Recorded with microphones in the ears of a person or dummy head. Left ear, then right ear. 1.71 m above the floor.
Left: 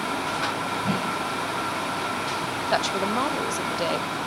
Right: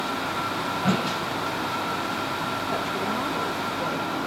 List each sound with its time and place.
0.8 s a whoosh: 80° right, 5.5 m
2.7 s a woman speaking: 60° left (ahead or behind), 0.7 m